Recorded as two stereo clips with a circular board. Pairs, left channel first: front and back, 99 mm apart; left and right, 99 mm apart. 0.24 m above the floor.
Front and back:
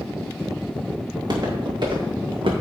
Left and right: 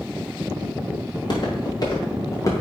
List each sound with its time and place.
1.1 s footsteps: 130° left, 5 m; by 2.5 s 145° left, 4.5 m